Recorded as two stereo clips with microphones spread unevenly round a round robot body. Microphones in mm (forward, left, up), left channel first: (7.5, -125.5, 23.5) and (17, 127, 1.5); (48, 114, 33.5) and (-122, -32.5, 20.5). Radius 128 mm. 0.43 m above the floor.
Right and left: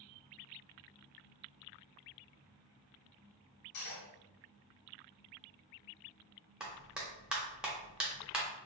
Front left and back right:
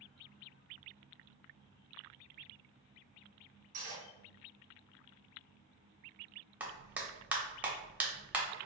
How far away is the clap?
About 0.8 m.